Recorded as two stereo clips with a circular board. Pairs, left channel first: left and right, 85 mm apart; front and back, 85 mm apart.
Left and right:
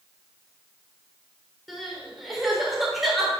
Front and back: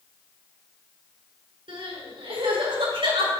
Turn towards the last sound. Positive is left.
turn(degrees=180)